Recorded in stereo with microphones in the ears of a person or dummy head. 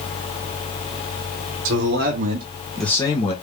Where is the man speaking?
65° right (ahead or behind), 1.2 m; by 3.3 s 35° left (ahead or behind), 1.1 m.